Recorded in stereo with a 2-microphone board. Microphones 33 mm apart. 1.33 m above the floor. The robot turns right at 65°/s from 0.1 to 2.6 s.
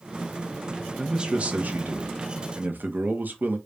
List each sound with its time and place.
1.0 s a man speaking: 170° right, 0.9 m; by 3.6 s 60° right, 0.9 m